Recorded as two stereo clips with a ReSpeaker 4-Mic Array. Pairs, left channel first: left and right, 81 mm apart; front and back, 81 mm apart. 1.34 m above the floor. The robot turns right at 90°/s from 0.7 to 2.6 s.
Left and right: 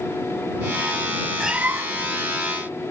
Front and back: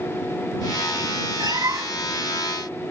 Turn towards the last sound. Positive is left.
turn(degrees=-70)